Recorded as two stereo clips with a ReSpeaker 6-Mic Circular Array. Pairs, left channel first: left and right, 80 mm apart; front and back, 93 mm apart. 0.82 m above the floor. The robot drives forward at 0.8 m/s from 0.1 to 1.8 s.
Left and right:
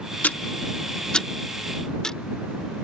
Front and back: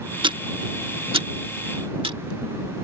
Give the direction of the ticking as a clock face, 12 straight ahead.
7 o'clock.